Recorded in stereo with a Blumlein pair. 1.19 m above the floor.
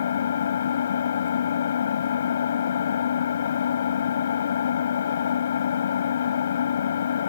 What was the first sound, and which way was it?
An engine running, 65° left.